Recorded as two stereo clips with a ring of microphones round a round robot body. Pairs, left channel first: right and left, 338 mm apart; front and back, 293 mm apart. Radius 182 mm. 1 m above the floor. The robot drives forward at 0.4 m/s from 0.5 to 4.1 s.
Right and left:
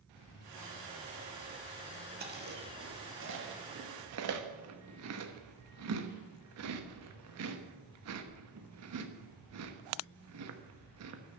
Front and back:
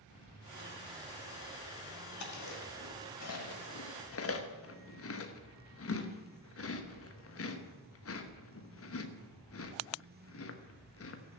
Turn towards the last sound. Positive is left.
turn(degrees=45)